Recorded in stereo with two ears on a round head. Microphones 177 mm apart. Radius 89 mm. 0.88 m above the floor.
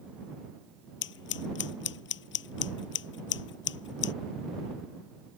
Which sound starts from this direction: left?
Scissors, at 1.0 s.